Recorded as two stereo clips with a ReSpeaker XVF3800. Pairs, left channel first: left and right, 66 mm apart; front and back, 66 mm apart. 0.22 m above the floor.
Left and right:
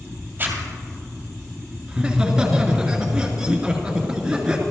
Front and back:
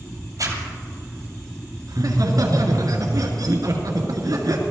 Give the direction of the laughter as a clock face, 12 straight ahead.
6 o'clock.